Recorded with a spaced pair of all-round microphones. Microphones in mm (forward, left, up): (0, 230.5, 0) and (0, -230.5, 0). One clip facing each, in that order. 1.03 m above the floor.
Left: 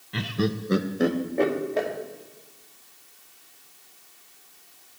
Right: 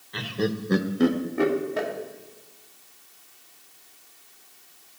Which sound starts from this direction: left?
Laughter, at 0.1 s.